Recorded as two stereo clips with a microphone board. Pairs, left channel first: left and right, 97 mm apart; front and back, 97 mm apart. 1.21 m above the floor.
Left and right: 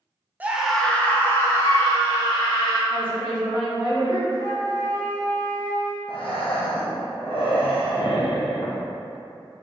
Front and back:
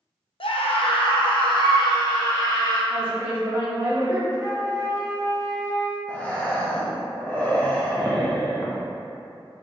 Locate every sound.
0.4 s a scream: 15° right, 0.5 m; by 2.8 s 45° left, 1.6 m
2.9 s a woman speaking: 115° left, 1.7 m
4.3 s a flute: 125° left, 1.3 m
6.1 s breathing: 75° left, 0.6 m